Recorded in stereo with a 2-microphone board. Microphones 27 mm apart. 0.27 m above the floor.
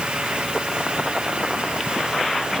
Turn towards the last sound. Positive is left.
No sound to turn to.